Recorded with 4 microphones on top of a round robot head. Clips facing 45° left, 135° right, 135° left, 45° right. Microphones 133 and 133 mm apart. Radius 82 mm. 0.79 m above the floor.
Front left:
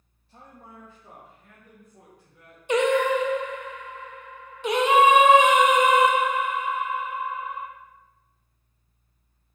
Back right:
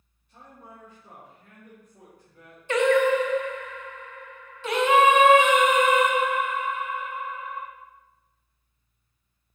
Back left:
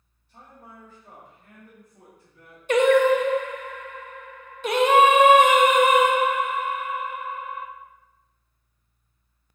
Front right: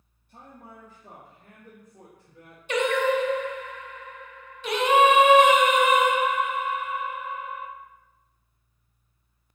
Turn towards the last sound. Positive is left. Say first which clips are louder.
# back right 1 dB, back left 6 dB
turn(degrees=115)